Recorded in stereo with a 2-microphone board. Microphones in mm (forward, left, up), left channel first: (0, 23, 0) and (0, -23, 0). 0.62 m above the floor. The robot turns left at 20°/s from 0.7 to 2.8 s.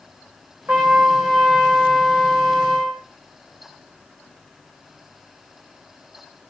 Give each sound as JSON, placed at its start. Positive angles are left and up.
{"t": 0.7, "sound": "a trumpet", "azimuth_deg": -135, "distance_m": 7.5}